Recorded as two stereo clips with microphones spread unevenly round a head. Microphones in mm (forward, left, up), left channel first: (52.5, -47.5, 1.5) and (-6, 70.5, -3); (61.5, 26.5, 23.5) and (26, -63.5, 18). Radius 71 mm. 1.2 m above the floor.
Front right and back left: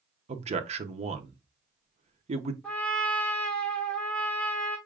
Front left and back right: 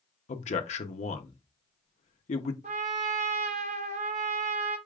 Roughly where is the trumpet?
Behind right.